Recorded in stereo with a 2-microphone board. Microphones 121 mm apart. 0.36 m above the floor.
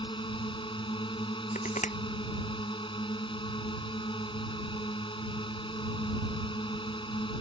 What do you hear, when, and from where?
0.0 s a drone: 40° left (ahead or behind)
1.6 s crushing: 75° left (ahead or behind)